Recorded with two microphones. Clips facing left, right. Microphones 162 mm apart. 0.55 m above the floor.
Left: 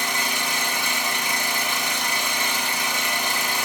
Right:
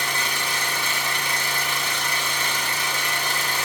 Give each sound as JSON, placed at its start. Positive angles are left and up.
{"t": 0.0, "sound": "an engine running", "side_deg": 10, "distance_m": 1.3}